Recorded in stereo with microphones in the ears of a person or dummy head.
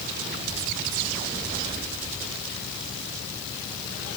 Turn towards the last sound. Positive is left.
No sound to turn to.